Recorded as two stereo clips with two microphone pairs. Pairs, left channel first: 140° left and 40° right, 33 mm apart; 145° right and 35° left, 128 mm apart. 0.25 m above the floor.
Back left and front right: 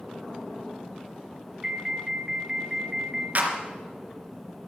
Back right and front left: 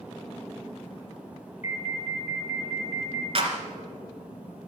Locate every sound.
1.6 s an alarm: 120° right, 2.5 m
3.4 s a clap: 5° right, 2.5 m